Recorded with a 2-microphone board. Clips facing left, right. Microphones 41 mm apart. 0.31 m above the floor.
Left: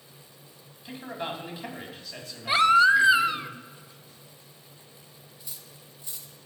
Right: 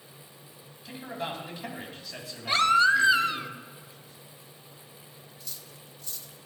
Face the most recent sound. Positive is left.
turn(degrees=20)  # may be behind; listen again after turning